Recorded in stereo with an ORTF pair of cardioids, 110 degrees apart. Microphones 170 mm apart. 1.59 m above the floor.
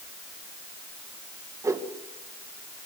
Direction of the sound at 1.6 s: 20° right.